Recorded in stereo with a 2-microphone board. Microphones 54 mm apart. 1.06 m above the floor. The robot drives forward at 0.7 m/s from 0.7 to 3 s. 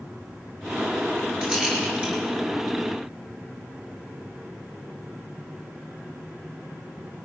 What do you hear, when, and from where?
1.4 s a rattle: 20° right (ahead or behind), 9 m